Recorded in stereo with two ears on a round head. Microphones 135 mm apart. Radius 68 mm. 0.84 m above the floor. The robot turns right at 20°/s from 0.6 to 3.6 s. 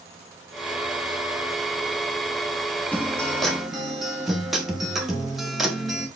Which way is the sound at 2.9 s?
10° left (ahead or behind).